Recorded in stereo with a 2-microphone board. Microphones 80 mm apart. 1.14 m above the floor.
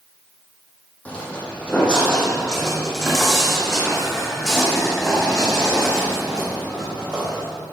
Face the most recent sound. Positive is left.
turn(degrees=-15)  # may be behind; listen again after turning